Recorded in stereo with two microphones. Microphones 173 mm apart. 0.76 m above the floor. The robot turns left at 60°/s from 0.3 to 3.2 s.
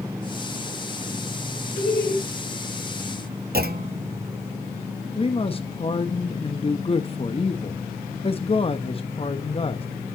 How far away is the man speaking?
About 0.8 m.